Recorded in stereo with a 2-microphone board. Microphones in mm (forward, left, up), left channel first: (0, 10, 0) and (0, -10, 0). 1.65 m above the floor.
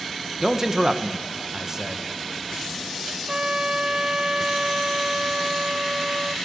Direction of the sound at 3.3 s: 45° right (ahead or behind).